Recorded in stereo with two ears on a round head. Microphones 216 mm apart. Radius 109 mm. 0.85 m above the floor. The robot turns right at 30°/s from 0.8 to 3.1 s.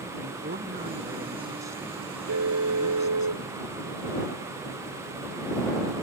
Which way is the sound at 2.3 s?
70° right (ahead or behind).